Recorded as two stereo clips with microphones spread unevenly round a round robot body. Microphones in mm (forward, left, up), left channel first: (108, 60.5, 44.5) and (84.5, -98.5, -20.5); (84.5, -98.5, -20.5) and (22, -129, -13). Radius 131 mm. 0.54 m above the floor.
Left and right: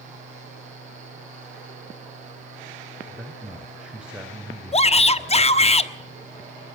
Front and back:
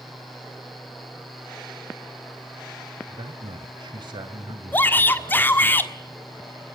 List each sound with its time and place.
3.1 s a man speaking: 175° right, 2.5 m
4.7 s a shout: 20° left, 1.5 m